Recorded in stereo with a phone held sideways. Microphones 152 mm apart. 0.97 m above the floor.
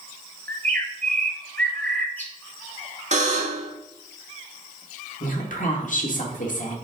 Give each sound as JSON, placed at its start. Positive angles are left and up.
{"t": 0.5, "sound": "a bird", "side_deg": 10, "distance_m": 1.0}
{"t": 3.1, "sound": "a buzzer", "side_deg": -50, "distance_m": 1.6}
{"t": 5.2, "sound": "a woman speaking", "side_deg": 60, "distance_m": 1.8}